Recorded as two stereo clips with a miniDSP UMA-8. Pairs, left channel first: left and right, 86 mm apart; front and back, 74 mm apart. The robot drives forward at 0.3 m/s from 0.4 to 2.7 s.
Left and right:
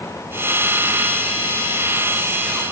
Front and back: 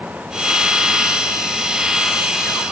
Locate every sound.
Only background noise.